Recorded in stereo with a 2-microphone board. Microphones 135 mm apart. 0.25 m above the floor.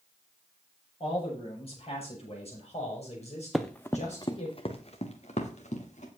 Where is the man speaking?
45° left (ahead or behind), 8 m; by 4.5 s 60° left (ahead or behind), 7.5 m.